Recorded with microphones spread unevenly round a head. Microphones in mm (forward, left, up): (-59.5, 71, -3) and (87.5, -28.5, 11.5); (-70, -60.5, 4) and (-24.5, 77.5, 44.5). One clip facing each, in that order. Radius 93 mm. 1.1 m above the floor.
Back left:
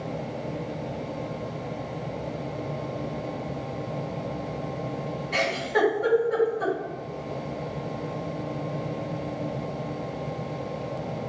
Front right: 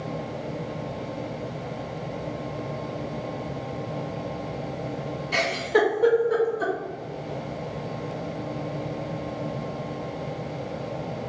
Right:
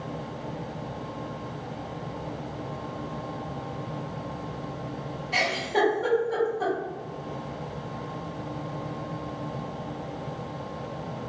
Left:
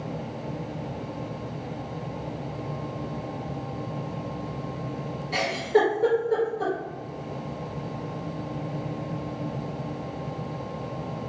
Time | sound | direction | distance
5.3 | a giggle | 5° left | 1.3 m